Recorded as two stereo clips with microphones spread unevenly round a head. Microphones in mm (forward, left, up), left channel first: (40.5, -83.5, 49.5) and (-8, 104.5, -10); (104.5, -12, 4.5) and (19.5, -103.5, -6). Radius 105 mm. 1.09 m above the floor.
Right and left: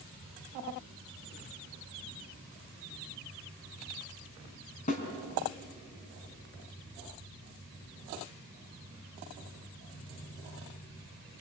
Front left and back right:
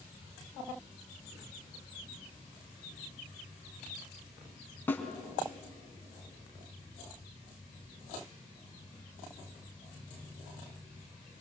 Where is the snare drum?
30° right, 3.5 m.